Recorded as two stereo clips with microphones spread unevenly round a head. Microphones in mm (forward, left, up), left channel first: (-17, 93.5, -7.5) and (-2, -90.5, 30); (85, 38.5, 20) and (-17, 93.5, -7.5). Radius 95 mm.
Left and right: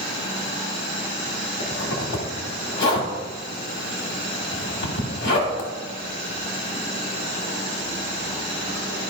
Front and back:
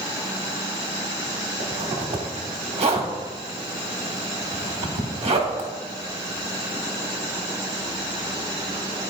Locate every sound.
1.6 s a zipper: 120° left, 1.5 m